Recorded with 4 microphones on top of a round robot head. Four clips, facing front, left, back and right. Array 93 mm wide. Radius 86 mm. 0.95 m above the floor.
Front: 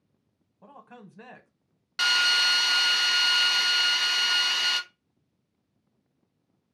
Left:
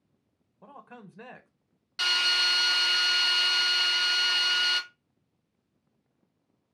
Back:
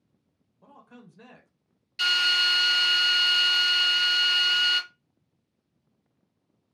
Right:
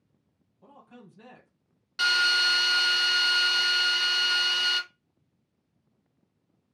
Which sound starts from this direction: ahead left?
A man speaking, at 0.6 s.